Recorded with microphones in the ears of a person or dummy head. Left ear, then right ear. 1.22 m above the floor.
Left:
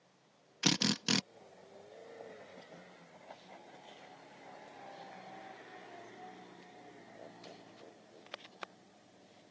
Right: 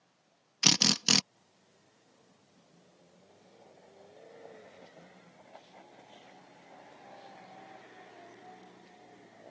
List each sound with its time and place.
0.6 s a drill: 25° right (ahead or behind)